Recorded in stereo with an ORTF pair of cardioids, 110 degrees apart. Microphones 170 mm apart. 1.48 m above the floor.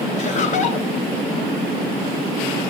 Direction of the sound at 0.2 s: 45° left.